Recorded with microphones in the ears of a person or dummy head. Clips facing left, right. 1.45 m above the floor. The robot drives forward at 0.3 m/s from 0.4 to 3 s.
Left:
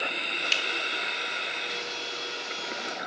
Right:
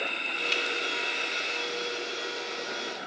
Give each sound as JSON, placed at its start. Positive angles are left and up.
{"t": 0.5, "sound": "a finger snap", "side_deg": 15, "distance_m": 0.6}